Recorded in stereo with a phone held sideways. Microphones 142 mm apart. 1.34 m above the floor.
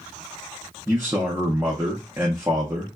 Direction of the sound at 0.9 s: 15° right (ahead or behind).